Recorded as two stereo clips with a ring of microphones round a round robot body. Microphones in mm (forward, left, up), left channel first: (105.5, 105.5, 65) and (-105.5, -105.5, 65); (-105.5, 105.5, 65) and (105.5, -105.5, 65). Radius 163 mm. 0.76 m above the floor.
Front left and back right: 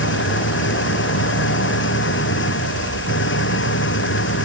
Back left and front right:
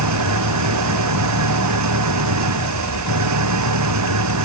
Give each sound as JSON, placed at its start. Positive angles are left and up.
{"t": 0.0, "sound": "an engine running", "azimuth_deg": -10}